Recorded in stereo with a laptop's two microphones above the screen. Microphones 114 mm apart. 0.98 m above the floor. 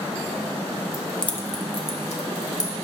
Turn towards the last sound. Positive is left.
turn(degrees=80)